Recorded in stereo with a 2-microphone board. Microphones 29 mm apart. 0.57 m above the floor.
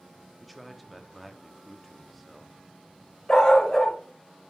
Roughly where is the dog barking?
Centre.